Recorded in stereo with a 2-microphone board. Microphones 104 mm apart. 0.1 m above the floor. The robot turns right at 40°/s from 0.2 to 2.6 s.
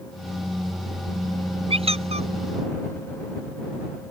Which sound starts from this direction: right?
A squeak, at 1.7 s.